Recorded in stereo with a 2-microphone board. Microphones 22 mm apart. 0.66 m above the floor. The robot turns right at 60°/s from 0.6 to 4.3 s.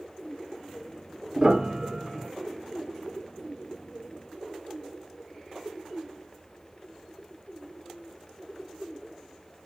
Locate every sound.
1.4 s a piano: 45° right (ahead or behind), 1.4 m; by 2.3 s 10° right (ahead or behind), 1.4 m